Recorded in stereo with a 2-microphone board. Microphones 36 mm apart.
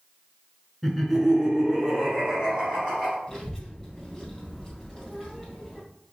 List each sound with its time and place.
0.8 s laughter: centre (ahead or behind), 1.2 m; by 3.2 s 25° right (ahead or behind), 1.6 m
3.3 s a child speaking: 5° left (ahead or behind), 1.8 m